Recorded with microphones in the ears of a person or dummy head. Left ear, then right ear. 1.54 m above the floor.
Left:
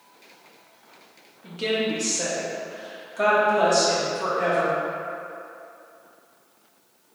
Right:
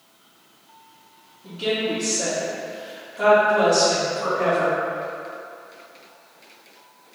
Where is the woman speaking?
70° left (ahead or behind), 1.2 m; by 4.8 s 55° left (ahead or behind), 2.5 m.